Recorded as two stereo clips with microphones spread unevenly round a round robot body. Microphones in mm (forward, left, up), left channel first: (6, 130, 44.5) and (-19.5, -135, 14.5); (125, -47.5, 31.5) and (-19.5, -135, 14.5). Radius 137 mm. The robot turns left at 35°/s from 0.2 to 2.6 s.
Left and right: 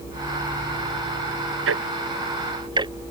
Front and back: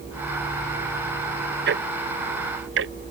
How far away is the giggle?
I don't hear a giggle.